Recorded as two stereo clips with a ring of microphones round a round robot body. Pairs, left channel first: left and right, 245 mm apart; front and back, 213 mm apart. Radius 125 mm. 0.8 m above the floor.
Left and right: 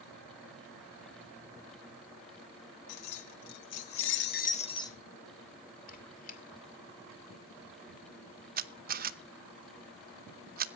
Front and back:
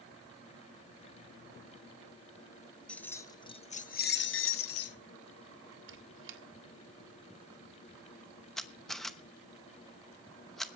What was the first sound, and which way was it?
Keys jangling, 85° left.